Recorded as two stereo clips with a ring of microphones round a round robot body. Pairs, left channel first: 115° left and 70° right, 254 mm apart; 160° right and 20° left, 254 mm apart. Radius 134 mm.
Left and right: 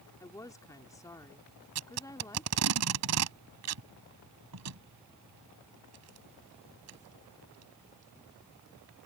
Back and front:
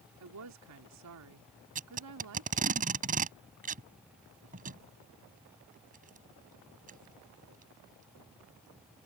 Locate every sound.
0.2 s a woman speaking: 35° left
1.8 s tape being pulled: 40° right